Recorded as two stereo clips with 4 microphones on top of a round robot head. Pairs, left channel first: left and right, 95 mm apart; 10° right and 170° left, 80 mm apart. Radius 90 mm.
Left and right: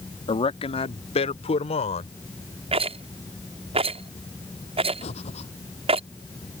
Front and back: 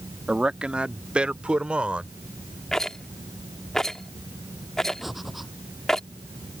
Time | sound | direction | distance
0.3 | a man speaking | 95° left | ?
2.7 | a rattle | 90° right | ?
5.0 | breathing | 85° left | ?